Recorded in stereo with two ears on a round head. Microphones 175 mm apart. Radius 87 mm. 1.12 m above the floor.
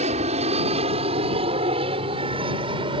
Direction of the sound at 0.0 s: 35° right (ahead or behind).